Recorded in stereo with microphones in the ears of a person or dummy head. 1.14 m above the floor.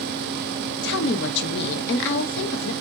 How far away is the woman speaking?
About 0.9 m.